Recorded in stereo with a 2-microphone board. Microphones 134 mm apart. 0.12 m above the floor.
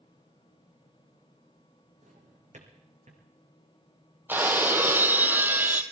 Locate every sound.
2.0 s a drawer: 60° right (ahead or behind), 2.5 m
4.3 s breaking glass: 15° right (ahead or behind), 0.8 m